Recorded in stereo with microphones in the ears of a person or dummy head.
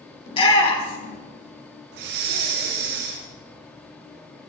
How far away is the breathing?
About 1.5 m.